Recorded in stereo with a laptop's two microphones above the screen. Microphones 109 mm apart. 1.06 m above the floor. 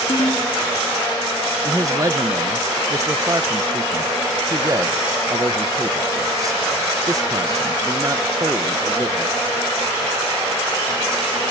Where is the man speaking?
30° right (ahead or behind), 1.0 m.